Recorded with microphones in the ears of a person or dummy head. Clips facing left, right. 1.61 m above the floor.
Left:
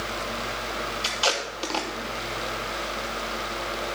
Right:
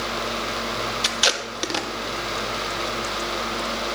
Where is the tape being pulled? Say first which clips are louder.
Right 1 dB; 20° right (ahead or behind), 1.1 m.